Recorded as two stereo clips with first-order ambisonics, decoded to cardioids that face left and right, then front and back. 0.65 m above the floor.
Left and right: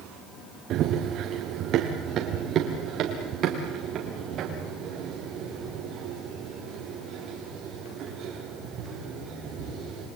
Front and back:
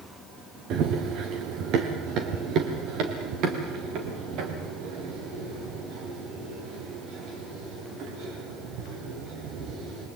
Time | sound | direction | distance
0.7 | running footsteps | 135° right | 2.5 m